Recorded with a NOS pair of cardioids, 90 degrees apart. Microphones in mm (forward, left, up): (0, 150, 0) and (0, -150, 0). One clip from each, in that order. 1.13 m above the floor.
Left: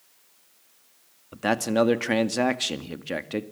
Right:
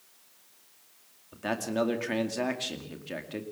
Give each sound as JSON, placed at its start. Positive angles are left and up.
{"t": 1.3, "sound": "a man speaking", "azimuth_deg": 50, "distance_m": 2.0}